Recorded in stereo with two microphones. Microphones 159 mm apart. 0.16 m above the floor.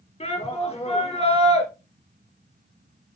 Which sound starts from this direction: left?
A shout, at 0.2 s.